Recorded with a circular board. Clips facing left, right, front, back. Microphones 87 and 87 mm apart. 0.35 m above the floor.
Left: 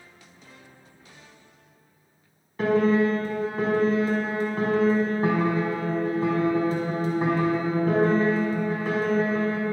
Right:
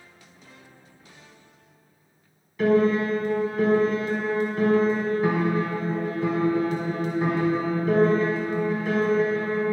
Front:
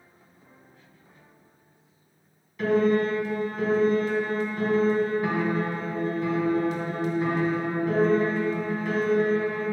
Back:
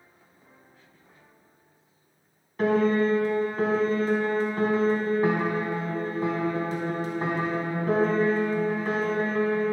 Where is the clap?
No clap in this recording.